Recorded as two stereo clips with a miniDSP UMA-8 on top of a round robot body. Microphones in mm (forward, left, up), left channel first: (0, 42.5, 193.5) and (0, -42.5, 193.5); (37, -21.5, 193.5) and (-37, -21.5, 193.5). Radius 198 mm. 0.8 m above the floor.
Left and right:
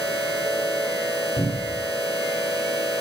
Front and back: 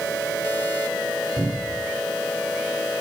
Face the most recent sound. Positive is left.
turn(degrees=110)